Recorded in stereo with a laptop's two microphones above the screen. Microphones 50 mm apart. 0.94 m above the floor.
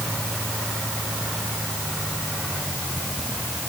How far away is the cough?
No cough in this recording.